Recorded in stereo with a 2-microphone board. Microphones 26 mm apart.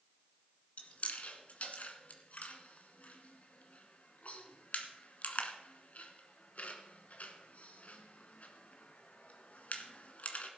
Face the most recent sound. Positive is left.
turn(degrees=65)  # may be behind; listen again after turning